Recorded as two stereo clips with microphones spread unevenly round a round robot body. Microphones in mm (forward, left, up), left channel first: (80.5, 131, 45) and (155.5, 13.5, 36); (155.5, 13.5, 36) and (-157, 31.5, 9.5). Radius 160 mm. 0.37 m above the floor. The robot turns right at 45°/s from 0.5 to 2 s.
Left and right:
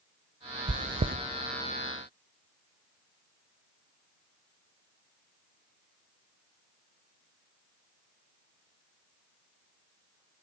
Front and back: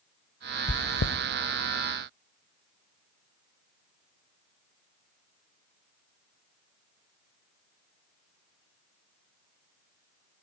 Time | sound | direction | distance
0.7 | chewing | 75° right | 0.5 m